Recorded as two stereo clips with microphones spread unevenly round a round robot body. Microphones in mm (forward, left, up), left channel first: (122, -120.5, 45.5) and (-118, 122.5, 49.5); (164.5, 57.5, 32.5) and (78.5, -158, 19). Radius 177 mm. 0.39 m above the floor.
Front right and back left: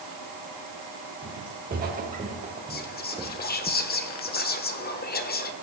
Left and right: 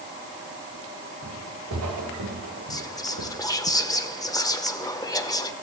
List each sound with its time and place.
1.2 s footsteps: 165° right, 3.5 m; by 3.7 s 130° right, 1.3 m
2.7 s whispering: straight ahead, 1.3 m